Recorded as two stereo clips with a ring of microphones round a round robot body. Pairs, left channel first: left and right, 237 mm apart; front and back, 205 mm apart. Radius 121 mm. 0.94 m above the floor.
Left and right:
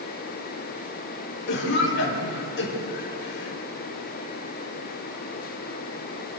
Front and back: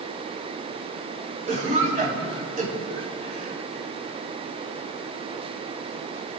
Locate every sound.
1.5 s a cough: 130° left, 4.5 m